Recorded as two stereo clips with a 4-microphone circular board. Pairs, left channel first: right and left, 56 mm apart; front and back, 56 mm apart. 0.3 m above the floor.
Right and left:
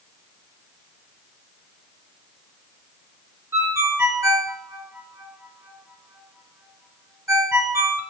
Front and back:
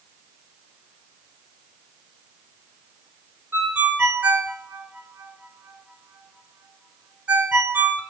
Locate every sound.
3.5 s a ringtone: 115° left, 3 m